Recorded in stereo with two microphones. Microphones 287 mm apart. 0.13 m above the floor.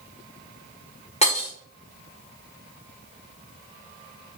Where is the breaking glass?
20° left (ahead or behind), 6 m.